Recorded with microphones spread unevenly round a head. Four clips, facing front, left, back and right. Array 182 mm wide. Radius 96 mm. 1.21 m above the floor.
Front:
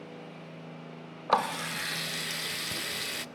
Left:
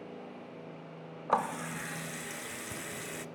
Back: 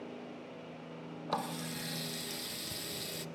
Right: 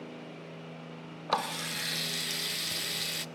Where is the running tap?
Straight ahead, 0.5 m.